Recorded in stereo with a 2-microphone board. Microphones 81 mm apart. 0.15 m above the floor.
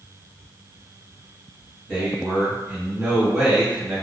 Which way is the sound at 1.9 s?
5° right (ahead or behind).